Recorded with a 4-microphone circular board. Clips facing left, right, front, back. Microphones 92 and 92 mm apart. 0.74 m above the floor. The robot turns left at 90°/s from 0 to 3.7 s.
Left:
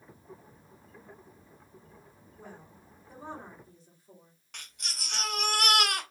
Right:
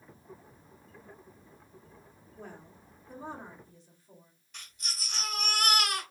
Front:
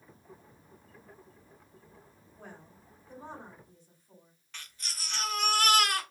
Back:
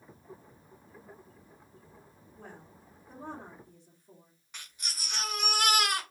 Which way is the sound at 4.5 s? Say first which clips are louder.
Even, back 1 dB; 105° left.